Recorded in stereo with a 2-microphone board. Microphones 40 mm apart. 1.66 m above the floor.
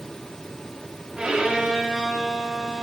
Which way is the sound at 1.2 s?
20° right (ahead or behind).